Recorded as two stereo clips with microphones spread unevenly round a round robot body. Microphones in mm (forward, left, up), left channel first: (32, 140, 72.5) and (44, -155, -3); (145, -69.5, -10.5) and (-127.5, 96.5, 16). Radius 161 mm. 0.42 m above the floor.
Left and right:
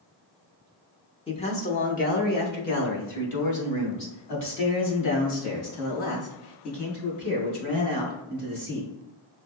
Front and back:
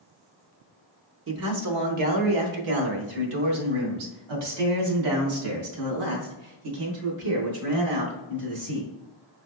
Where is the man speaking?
170° left, 0.9 m; by 8.9 s 145° left, 4.5 m.